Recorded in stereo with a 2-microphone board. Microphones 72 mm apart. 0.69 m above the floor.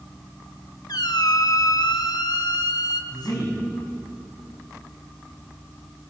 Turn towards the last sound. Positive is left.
turn(degrees=75)  # may be behind; listen again after turning